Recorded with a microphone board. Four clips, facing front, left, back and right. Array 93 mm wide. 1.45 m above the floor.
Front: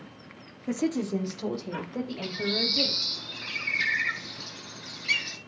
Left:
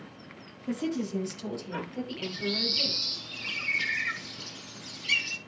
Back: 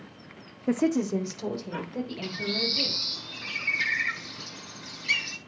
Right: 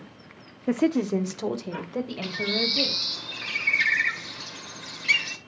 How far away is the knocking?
No knocking in this recording.